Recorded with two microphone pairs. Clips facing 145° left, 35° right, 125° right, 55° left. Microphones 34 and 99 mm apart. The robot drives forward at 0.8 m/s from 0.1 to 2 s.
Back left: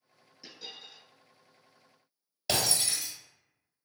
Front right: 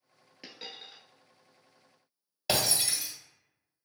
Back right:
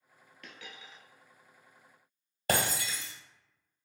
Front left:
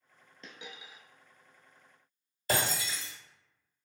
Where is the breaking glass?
110° right, 1.4 m.